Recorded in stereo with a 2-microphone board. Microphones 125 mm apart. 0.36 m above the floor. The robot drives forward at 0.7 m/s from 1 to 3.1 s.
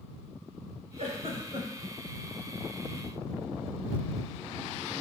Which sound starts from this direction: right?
A giggle, at 1.0 s.